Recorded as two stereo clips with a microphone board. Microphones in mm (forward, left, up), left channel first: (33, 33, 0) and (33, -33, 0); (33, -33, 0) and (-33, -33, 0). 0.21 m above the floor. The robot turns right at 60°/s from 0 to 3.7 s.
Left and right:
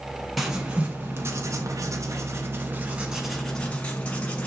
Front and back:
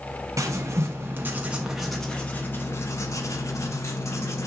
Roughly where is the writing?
Behind.